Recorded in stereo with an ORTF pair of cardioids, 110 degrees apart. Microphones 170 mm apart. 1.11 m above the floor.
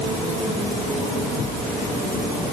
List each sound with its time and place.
Only background noise.